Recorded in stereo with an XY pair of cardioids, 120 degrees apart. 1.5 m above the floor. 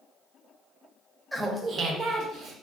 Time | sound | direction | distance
1.3 | laughter | 5° right | 0.6 m